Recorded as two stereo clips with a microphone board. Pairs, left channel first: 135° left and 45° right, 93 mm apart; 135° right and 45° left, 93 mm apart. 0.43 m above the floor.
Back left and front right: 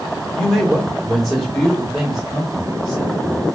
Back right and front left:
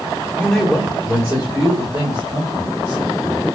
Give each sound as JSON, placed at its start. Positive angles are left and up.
{"t": 0.3, "sound": "a man speaking", "azimuth_deg": -155, "distance_m": 1.1}